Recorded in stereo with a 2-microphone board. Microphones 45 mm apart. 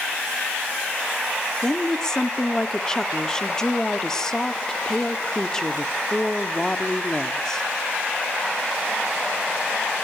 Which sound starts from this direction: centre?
A woman speaking, at 1.6 s.